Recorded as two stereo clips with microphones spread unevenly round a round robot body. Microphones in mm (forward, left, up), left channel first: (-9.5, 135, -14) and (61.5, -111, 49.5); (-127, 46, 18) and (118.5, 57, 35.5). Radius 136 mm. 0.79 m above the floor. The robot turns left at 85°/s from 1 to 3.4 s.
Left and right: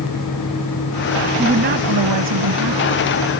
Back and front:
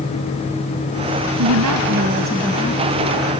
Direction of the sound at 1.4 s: Straight ahead.